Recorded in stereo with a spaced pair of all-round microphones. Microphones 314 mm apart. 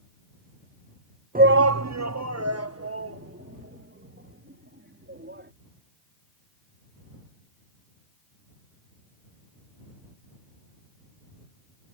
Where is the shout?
25° right (ahead or behind); by 5.5 s 35° right (ahead or behind).